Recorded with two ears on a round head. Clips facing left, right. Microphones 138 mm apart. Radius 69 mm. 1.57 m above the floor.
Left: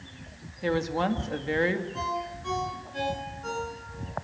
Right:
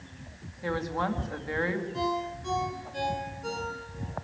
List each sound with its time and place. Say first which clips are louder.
0.6 s a woman speaking: left 4 dB; 30° left (ahead or behind), 2 m
1.9 s a ringtone: right 2 dB; 15° right (ahead or behind), 9 m